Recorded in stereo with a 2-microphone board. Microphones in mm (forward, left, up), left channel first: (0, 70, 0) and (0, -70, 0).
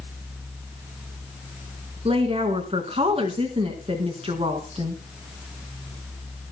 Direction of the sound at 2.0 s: 40° right (ahead or behind).